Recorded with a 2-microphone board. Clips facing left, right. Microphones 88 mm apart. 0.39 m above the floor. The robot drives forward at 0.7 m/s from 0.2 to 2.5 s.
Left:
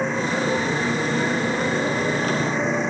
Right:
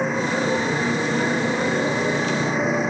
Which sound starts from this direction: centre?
A motorcycle, at 0.0 s.